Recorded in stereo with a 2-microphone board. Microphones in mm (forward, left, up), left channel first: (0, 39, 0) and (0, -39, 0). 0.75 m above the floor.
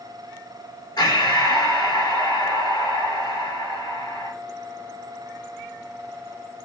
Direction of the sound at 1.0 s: 60° left (ahead or behind).